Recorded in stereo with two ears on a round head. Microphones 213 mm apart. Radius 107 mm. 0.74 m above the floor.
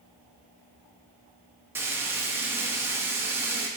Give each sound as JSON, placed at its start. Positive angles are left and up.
{"t": 1.8, "sound": "frying", "side_deg": -10, "distance_m": 0.7}